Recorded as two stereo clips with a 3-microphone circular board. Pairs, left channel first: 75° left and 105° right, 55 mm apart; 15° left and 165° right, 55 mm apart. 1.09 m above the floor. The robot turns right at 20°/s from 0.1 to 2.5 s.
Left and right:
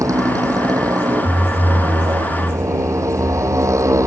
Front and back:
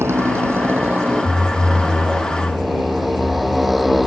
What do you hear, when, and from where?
0.0 s a motorcycle: 125° right; by 4.1 s 75° right